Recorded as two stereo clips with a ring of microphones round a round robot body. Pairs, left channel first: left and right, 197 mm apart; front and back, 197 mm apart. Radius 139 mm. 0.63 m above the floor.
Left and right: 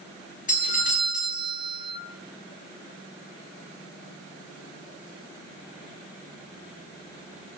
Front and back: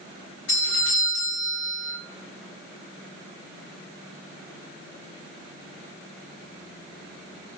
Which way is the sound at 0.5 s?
40° left.